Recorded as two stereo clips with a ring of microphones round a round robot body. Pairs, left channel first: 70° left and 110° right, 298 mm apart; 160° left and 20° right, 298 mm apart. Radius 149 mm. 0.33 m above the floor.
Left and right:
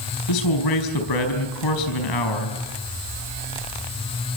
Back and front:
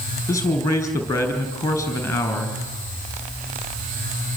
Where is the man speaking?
75° left, 5 m.